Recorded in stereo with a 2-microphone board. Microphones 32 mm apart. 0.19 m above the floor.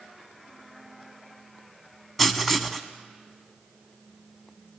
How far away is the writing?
About 0.8 m.